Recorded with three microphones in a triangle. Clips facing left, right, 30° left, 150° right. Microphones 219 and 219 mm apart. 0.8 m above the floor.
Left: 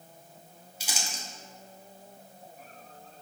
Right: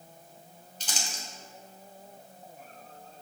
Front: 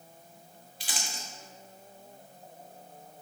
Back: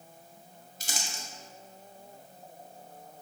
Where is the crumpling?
170° left, 1.2 m.